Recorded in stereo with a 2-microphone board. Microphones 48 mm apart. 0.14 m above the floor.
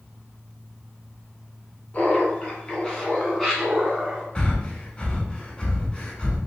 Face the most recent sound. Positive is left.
turn(degrees=20)  # may be behind; listen again after turning